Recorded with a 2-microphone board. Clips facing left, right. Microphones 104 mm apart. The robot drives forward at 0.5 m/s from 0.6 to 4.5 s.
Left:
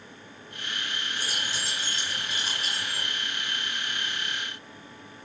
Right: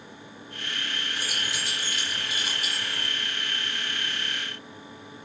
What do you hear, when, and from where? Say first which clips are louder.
1.2 s keys jangling: even; 5° right (ahead or behind), 3.5 m